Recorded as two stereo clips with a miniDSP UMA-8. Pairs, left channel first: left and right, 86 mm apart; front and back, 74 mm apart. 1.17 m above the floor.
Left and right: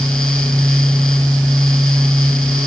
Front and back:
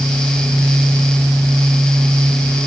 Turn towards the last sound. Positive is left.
No sound to turn to.